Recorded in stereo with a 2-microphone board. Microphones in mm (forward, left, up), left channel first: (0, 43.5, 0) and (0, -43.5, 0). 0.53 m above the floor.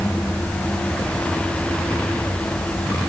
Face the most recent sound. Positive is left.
No sound to turn to.